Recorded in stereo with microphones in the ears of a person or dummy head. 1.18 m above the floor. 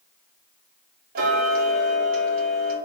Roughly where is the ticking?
Right.